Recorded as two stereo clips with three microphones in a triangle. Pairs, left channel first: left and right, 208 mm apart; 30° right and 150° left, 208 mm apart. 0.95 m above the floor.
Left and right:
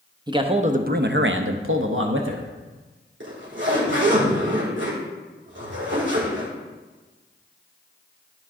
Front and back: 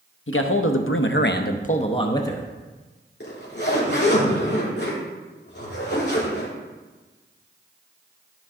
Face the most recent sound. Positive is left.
turn(degrees=-65)